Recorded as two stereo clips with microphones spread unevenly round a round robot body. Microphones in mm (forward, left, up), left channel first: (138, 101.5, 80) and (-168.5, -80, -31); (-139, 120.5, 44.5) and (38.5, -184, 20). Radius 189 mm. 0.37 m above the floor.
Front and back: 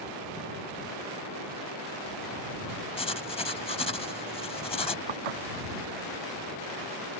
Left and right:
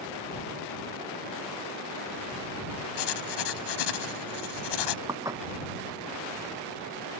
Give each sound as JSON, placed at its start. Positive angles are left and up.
{"t": 3.0, "sound": "writing", "azimuth_deg": 110}
{"t": 5.1, "sound": "dishes clattering", "azimuth_deg": -140}